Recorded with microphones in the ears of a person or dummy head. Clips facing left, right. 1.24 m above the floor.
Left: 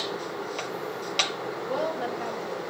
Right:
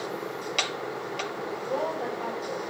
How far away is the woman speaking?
About 6 m.